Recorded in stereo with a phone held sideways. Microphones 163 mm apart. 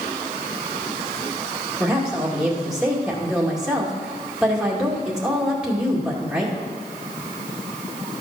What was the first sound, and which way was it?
A woman speaking, 5° right (ahead or behind).